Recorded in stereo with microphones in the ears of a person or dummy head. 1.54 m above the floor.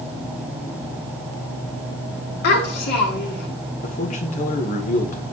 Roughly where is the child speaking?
Left.